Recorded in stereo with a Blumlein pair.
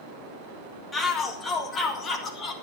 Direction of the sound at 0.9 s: 10° left.